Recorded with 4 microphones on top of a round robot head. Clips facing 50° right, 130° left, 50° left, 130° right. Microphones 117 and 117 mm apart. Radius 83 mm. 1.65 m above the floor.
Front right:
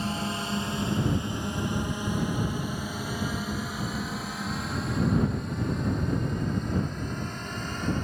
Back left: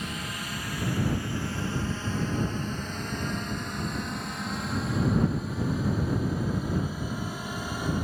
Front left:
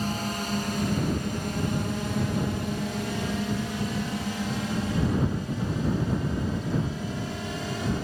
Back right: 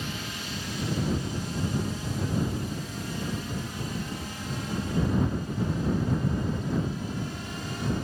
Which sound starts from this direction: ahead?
A drone, at 0.0 s.